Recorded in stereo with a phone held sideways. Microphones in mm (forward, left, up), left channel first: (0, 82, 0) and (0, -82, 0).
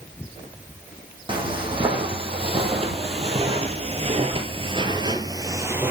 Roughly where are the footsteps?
Right.